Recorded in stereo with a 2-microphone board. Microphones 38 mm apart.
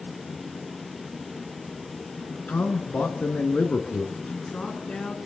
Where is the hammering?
No hammering in this recording.